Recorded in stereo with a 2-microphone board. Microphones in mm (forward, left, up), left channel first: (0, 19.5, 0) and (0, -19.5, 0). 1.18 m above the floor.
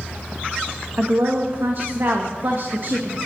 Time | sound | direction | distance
1.0 | a woman speaking | 60° right (ahead or behind) | 1.6 m